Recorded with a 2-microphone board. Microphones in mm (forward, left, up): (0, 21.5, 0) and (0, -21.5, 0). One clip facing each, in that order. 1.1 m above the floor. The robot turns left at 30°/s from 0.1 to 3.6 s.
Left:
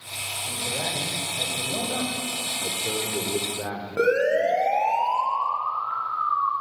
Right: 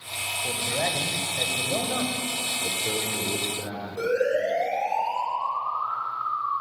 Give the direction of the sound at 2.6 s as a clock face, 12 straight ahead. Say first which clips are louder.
Left 1 dB; 7 o'clock.